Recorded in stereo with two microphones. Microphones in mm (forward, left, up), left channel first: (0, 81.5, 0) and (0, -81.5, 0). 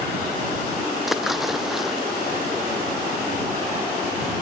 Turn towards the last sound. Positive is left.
turn(degrees=0)  # may be behind; listen again after turning